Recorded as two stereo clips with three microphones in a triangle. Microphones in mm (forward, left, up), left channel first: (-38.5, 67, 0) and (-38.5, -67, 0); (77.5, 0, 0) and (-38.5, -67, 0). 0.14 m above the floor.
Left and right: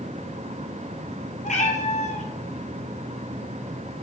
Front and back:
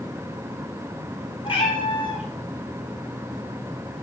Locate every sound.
1.4 s a cat meowing: 75° left, 1.6 m